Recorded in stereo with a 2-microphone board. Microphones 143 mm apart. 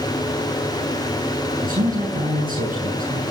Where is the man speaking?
75° right (ahead or behind), 8 m.